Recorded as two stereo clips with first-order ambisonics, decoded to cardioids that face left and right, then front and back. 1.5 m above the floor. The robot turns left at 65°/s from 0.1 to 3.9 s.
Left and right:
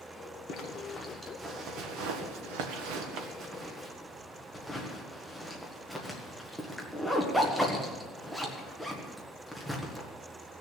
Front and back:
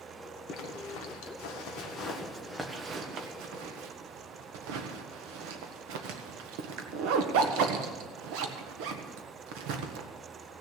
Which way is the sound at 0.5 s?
45° left.